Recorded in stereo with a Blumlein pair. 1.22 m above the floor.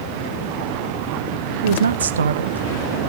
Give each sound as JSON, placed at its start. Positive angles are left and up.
{"t": 1.6, "sound": "a woman speaking", "azimuth_deg": -65, "distance_m": 1.0}